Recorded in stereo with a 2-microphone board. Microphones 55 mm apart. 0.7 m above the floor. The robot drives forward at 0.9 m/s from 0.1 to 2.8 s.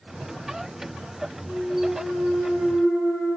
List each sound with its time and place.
1.4 s a clunk: 45° left (ahead or behind), 2.5 m; by 3.4 s 75° left (ahead or behind), 1.7 m